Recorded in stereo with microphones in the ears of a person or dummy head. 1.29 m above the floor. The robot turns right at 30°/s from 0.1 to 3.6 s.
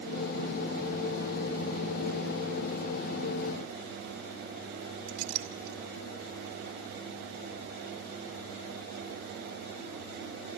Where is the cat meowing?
I don't hear a cat meowing.